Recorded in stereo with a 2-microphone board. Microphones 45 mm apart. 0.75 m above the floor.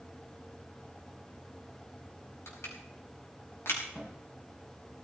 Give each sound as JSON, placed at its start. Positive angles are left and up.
{"t": 2.5, "sound": "crushing", "side_deg": 70, "distance_m": 4.5}
{"t": 4.0, "sound": "a cupboard door", "side_deg": 20, "distance_m": 4.0}